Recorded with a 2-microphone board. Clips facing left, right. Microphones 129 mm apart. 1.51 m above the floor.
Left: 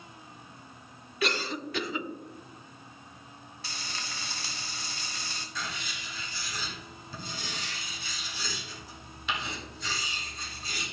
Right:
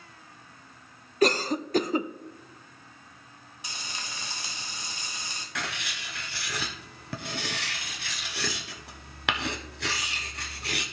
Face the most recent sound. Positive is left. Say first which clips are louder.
# right 4 dB
turn(degrees=-70)  # may be behind; listen again after turning